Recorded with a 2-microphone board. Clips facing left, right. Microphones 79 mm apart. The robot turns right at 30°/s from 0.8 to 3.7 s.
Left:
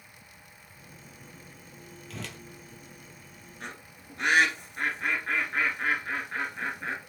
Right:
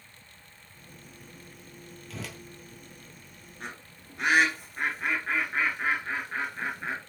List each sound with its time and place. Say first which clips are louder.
2.1 s a whoosh: right 1 dB; centre (ahead or behind), 0.6 m; by 2.4 s 5° right (ahead or behind), 0.6 m
3.6 s a bird: right 1 dB; centre (ahead or behind), 1.7 m; by 7.0 s 5° right (ahead or behind), 1.7 m